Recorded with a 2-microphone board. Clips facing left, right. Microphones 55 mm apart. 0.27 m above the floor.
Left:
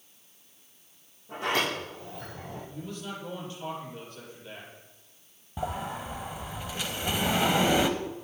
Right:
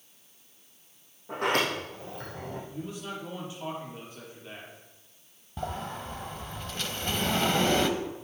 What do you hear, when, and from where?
1.3 s a sliding door: 55° right (ahead or behind), 5 m
2.7 s a man speaking: 15° right (ahead or behind), 6 m
5.6 s a sliding door: 10° left (ahead or behind), 0.8 m